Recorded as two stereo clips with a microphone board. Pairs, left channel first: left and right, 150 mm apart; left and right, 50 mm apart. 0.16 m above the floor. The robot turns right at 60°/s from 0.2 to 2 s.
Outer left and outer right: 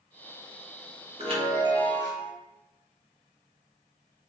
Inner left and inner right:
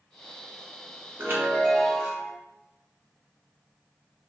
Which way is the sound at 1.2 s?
95° right.